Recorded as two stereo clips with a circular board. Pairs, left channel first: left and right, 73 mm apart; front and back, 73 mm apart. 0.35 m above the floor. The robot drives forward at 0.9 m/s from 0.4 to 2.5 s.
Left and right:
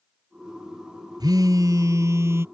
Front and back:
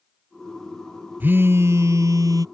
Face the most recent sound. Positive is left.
turn(degrees=-145)